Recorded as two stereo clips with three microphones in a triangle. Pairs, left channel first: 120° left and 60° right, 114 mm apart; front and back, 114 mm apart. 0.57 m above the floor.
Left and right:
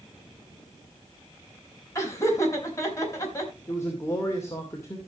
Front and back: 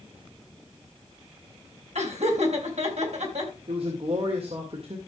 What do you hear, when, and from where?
1.9 s laughter: 175° right, 4 m
3.7 s a man speaking: straight behind, 2.5 m